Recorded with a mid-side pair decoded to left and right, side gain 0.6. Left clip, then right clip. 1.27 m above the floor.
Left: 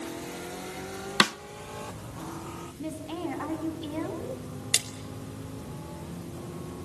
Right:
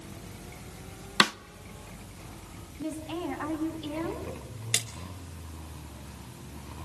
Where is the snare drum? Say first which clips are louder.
Even; 10° left, 0.6 m.